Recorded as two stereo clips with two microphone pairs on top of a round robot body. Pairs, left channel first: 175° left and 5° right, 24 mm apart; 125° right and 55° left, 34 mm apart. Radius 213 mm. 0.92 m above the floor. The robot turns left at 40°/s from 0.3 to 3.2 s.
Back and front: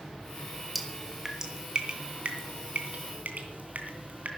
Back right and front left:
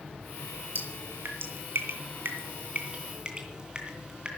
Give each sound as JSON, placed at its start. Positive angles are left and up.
{"t": 0.8, "sound": "dripping", "azimuth_deg": 85, "distance_m": 2.5}